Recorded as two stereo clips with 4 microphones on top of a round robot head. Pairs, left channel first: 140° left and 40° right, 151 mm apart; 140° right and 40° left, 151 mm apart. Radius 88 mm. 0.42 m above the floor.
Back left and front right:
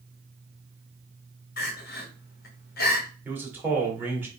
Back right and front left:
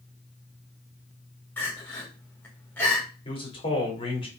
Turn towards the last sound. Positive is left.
turn(degrees=-110)